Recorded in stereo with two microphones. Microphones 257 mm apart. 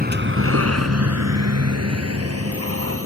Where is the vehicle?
35° right (ahead or behind); by 3.1 s 60° right (ahead or behind).